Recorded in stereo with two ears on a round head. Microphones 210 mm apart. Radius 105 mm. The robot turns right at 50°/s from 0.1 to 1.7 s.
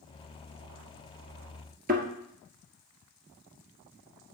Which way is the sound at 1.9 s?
40° right (ahead or behind).